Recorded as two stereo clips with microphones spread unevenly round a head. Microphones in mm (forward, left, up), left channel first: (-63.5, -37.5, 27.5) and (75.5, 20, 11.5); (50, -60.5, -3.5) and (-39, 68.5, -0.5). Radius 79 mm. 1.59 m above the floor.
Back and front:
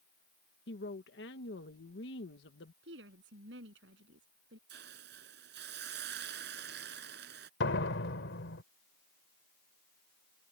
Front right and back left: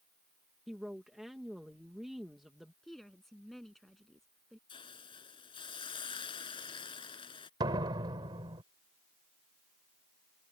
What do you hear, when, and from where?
0.7 s a woman speaking: 145° right
2.8 s a woman speaking: 35° left
4.7 s a hiss: 5° left
7.6 s a door slam: 170° right